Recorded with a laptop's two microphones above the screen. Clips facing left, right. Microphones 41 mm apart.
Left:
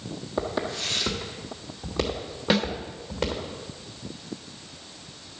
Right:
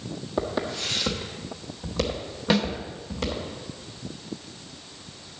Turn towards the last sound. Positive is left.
turn(degrees=5)  # may be behind; listen again after turning